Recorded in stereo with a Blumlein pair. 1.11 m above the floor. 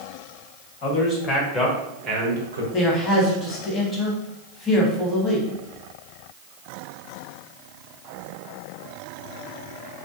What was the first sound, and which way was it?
A man speaking, 40° left.